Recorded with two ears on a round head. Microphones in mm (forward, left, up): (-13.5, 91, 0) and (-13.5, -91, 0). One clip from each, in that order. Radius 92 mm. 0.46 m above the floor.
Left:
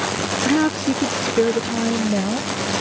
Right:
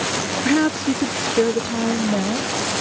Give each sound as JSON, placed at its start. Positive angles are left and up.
{"t": 0.5, "sound": "a woman speaking", "side_deg": -10}